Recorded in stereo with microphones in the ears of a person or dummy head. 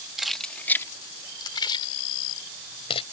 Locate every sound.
0.2 s keys jangling: 5° right (ahead or behind); by 3.0 s 25° left (ahead or behind)